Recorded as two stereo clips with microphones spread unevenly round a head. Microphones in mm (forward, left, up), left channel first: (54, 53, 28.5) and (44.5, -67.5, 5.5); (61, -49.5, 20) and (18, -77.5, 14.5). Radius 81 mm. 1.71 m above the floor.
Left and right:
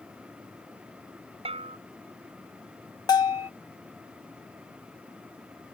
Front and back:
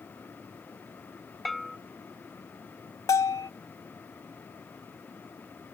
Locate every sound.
1.4 s a bell: 55° right
3.1 s a bell: 30° left